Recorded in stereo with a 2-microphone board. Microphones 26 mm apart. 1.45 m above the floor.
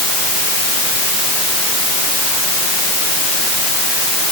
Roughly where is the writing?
I don't hear writing.